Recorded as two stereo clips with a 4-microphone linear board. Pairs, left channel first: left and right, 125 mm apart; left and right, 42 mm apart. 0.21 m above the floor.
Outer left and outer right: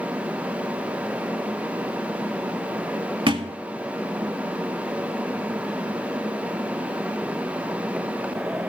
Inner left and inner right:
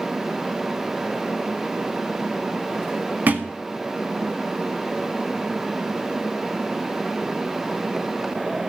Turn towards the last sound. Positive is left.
turn(degrees=-45)  # may be behind; listen again after turning